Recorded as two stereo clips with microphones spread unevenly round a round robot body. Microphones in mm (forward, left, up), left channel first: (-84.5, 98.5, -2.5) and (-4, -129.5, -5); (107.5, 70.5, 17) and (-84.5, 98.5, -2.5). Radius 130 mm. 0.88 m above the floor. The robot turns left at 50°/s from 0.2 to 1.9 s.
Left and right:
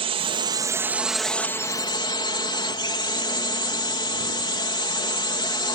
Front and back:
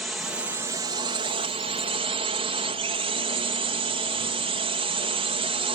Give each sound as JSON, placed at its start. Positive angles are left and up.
{"t": 0.0, "sound": "a drone", "azimuth_deg": -110}